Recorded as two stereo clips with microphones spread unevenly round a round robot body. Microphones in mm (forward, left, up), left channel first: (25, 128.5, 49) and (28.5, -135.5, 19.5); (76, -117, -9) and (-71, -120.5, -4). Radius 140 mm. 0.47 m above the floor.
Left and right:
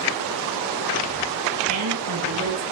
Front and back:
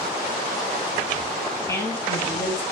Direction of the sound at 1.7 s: 65° right.